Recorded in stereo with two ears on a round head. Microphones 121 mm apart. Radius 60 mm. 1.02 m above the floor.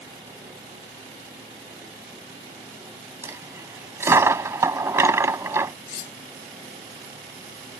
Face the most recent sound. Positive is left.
turn(degrees=60)  # may be behind; listen again after turning